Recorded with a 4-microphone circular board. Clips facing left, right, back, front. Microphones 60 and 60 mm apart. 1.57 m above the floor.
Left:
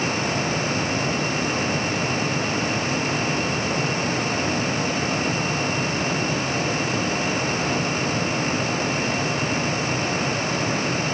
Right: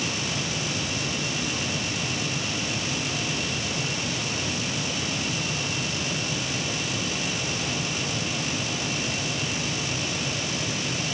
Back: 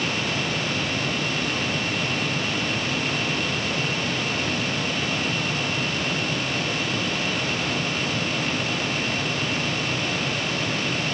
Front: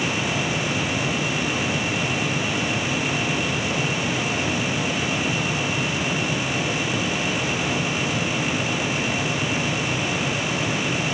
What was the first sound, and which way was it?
Only background noise.